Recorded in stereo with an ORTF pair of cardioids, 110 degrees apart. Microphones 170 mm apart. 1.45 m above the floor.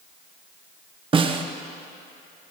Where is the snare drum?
30° right, 1.0 m.